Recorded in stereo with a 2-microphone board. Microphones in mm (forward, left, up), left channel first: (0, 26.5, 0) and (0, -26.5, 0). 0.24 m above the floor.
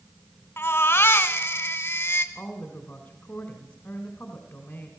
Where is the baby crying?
40° left (ahead or behind), 1.6 m.